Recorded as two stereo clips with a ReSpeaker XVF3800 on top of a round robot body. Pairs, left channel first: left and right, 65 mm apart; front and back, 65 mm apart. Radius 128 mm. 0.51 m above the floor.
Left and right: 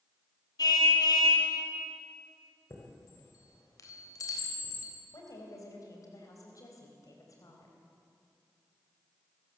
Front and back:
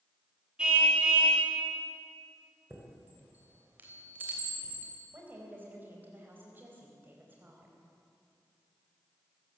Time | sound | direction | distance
0.6 | a car horn | 105° left | 3.5 m
2.7 | a chime | 120° left | 3.5 m
5.1 | a woman speaking | 120° left | 4 m